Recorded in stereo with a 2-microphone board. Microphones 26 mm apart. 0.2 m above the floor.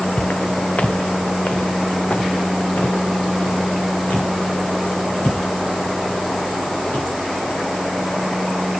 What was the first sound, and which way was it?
Footsteps, 60° left (ahead or behind).